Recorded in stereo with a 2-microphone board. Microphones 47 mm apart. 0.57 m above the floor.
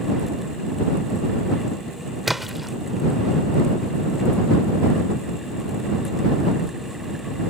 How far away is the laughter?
No laughter in this recording.